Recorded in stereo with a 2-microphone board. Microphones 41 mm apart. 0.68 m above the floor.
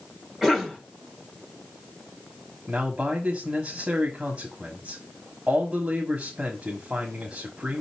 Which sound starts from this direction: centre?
A cough, at 0.4 s.